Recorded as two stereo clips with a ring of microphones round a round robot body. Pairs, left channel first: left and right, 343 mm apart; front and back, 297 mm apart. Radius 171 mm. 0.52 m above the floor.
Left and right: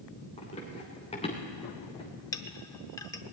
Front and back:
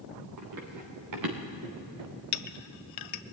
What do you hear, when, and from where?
0.4 s running footsteps: 165° left, 3.5 m
2.3 s a clink: 10° left, 0.6 m